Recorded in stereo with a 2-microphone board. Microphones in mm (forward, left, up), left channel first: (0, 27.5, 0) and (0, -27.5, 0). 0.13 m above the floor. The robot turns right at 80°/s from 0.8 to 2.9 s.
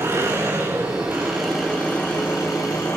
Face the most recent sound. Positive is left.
turn(degrees=115)